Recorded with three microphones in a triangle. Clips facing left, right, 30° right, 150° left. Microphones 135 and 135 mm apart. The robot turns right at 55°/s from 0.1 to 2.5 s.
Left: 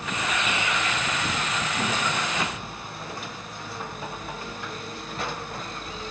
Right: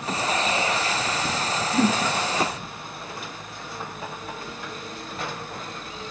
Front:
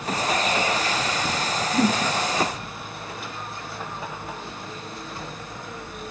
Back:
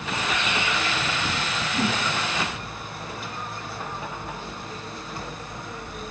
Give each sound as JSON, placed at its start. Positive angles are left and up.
{"t": 1.7, "sound": "a whoosh", "azimuth_deg": -85}